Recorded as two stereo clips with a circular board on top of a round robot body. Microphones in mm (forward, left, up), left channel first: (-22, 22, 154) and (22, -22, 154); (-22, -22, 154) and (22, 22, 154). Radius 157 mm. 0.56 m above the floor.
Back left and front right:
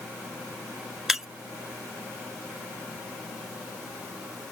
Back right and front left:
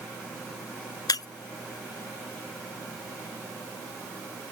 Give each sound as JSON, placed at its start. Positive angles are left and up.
{"t": 1.1, "sound": "breaking glass", "azimuth_deg": -130}